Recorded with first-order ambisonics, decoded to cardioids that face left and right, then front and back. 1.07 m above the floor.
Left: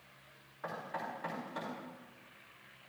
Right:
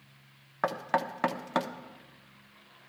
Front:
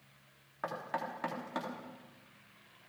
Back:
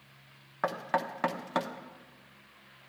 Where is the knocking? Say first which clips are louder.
Right 11 dB, back 7 dB; 115° right, 1.1 m.